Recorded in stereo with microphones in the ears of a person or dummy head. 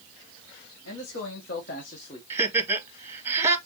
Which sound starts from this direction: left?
A man speaking, at 0.8 s.